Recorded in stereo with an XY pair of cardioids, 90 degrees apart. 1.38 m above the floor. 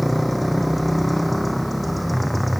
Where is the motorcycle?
5° left.